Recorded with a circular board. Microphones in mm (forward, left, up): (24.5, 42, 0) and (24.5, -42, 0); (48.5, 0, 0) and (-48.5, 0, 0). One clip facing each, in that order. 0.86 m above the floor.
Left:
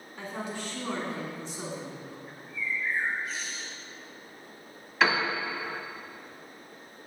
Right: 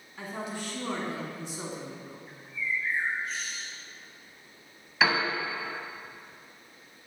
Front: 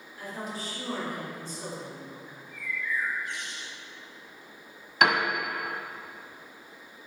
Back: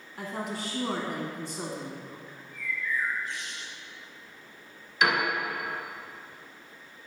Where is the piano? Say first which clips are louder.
Left 1 dB, front 2 dB; 5° right, 1.2 m.